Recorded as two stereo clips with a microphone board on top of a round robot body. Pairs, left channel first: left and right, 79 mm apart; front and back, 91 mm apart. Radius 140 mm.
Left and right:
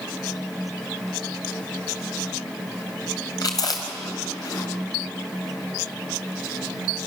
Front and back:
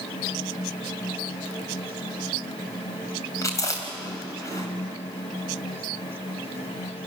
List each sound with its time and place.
3.4 s chewing: 55° left, 2.5 m